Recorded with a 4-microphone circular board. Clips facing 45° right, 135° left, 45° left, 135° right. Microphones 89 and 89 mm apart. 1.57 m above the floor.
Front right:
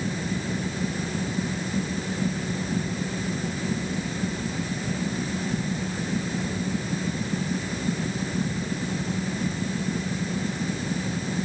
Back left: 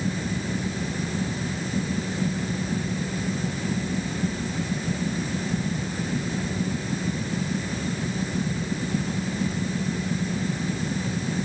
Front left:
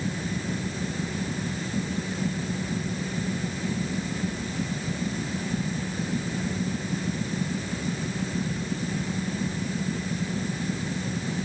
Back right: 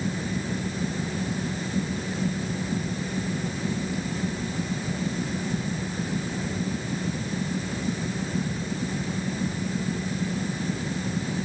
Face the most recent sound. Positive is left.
No sound to turn to.